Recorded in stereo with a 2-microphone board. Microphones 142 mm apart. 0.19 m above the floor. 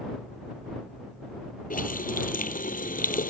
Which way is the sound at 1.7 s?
80° left.